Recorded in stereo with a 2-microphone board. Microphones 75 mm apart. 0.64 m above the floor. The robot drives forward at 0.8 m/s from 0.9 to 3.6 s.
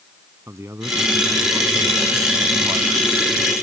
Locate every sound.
0.5 s a man speaking: 40° right (ahead or behind); by 3.0 s 55° right (ahead or behind)